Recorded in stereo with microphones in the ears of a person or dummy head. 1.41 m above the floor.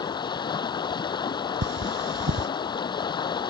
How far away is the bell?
I don't hear a bell.